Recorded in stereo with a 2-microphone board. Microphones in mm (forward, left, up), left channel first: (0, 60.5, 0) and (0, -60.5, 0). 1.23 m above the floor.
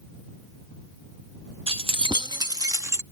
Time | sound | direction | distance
1.7 | keys jangling | 55° right (ahead or behind) | ?